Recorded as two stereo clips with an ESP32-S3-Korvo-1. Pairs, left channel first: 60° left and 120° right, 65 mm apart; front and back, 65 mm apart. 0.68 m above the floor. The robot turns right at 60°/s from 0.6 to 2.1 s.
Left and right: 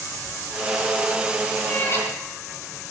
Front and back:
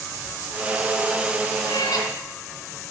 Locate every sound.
1.6 s a cat meowing: 10° right, 3.5 m; by 2.1 s 15° left, 3.5 m